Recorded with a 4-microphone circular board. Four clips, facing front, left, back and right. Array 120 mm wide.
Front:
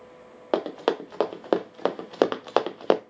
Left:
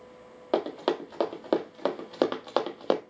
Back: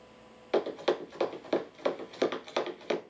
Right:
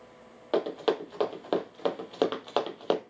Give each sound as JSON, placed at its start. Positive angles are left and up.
{"t": 0.5, "sound": "running footsteps", "azimuth_deg": 10, "distance_m": 2.0}